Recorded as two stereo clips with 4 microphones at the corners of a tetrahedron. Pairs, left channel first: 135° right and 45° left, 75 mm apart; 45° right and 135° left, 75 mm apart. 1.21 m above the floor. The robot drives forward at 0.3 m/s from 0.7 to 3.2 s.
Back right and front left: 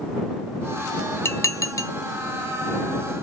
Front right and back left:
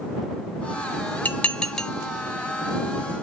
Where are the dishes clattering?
105° right, 0.6 m; by 1.9 s 130° right, 0.6 m.